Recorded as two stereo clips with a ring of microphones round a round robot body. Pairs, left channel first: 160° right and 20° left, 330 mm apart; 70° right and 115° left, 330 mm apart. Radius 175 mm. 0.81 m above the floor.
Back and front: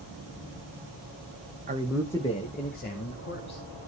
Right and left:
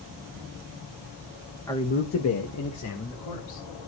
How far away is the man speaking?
About 0.9 m.